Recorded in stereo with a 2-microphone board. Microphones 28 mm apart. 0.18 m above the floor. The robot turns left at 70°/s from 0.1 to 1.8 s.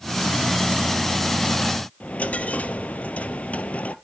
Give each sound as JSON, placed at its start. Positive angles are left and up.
{"t": 2.0, "sound": "a dropped coin", "side_deg": 55, "distance_m": 1.0}